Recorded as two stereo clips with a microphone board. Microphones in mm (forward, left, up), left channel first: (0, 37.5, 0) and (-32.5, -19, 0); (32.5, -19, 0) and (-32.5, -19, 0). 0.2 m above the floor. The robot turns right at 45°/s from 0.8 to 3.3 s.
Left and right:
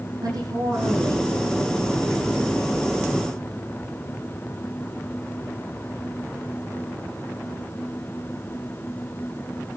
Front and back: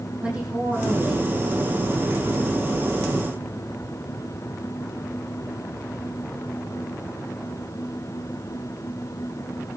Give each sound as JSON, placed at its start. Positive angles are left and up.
{"t": 0.2, "sound": "a woman speaking", "azimuth_deg": -115, "distance_m": 9.0}